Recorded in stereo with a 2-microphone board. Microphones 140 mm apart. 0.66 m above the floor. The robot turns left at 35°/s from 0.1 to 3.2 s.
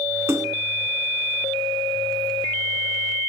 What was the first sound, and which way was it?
A splash, 20° right (ahead or behind).